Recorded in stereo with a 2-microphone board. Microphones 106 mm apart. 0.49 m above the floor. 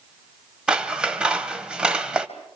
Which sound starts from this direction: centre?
Scissors, at 0.7 s.